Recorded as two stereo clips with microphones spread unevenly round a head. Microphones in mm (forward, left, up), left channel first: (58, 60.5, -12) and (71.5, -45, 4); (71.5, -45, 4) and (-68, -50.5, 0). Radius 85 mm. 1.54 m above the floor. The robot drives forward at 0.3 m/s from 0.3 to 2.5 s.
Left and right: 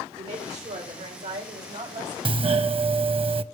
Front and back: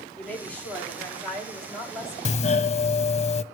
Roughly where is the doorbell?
Ahead right.